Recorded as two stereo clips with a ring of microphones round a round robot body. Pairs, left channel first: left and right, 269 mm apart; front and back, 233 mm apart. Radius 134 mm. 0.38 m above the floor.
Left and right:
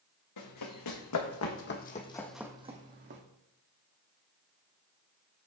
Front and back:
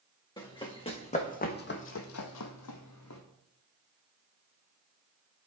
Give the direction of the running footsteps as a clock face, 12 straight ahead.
10 o'clock.